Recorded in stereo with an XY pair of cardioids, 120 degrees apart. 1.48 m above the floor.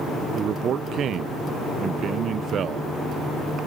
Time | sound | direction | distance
0.3 | a man speaking | 55° right | ?